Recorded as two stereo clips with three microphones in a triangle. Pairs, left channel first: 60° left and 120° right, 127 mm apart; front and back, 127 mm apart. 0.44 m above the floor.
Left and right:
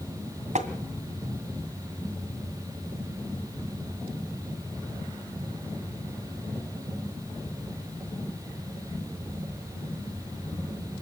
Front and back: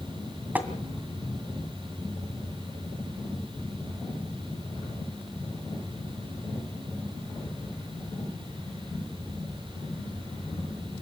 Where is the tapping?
105° right, 2 m.